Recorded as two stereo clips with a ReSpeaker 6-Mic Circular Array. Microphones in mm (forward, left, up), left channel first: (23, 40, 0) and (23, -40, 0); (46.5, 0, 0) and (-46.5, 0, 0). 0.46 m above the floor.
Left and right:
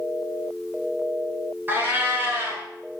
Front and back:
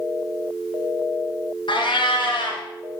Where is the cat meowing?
25° right, 2.5 m.